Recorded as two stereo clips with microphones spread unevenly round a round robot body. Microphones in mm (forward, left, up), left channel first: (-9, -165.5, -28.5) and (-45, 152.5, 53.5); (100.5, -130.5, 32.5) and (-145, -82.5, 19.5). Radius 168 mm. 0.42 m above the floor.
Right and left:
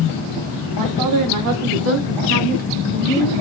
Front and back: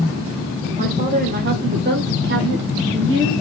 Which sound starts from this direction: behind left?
A woman speaking, at 0.8 s.